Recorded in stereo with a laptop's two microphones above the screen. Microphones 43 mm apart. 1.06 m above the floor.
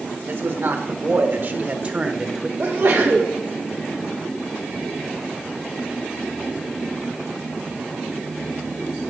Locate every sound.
0.3 s a man speaking: 65° right (ahead or behind), 1.8 m; by 2.5 s 5° right (ahead or behind), 0.7 m
2.6 s a sneeze: 55° right (ahead or behind), 1.1 m